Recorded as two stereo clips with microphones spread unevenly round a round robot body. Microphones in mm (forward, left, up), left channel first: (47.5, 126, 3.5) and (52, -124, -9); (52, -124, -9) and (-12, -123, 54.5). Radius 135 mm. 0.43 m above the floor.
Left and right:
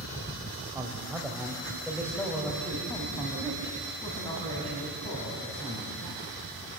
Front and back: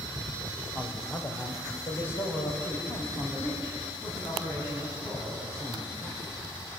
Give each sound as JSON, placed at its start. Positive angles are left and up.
{"t": 0.8, "sound": "a man speaking", "azimuth_deg": -15, "distance_m": 2.5}